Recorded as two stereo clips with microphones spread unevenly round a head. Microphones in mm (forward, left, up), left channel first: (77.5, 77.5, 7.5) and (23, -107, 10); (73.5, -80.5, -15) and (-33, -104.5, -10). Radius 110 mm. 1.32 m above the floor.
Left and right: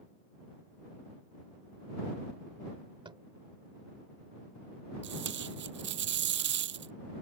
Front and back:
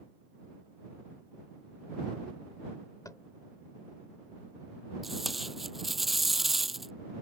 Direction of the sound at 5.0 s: 80° right.